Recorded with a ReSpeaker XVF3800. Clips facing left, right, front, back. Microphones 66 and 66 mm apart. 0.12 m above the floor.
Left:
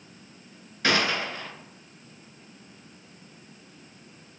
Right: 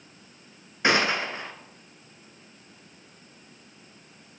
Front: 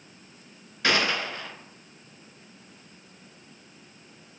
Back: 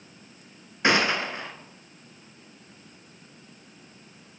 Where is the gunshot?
135° right, 0.7 m.